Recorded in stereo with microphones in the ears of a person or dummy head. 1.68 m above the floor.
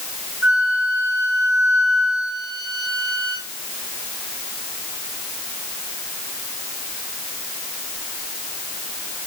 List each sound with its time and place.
0.4 s a flute: 70° left (ahead or behind), 5 m